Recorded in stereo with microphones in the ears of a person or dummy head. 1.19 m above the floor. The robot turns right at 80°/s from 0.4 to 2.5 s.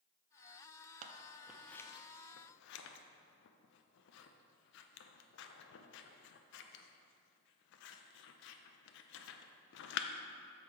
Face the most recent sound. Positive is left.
turn(degrees=65)  # may be behind; listen again after turning